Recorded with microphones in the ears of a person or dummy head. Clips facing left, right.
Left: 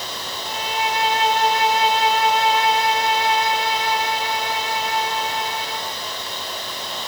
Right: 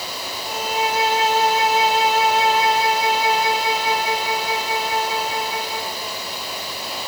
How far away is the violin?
About 2.5 m.